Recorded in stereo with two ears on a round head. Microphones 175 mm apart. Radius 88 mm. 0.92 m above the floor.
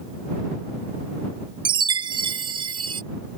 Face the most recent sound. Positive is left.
turn(degrees=-25)  # may be behind; listen again after turning